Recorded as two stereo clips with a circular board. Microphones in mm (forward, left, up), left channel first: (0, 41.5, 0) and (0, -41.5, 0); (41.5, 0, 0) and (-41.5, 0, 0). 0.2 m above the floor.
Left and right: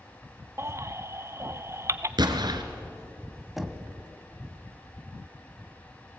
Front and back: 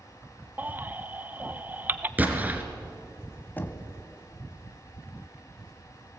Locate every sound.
0.6 s a baby crying: 125° right, 0.6 m
2.2 s an explosion: 115° right, 1.6 m
3.6 s knocking: 5° right, 1.0 m